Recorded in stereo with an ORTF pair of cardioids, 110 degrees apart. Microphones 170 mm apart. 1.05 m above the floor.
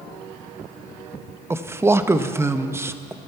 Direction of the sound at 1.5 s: 15° right.